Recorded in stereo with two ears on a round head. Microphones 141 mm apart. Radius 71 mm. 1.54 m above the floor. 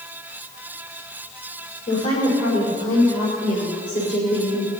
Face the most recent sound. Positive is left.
turn(degrees=70)  # may be behind; listen again after turning